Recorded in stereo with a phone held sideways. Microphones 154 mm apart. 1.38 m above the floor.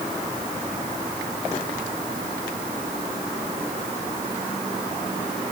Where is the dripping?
I don't hear dripping.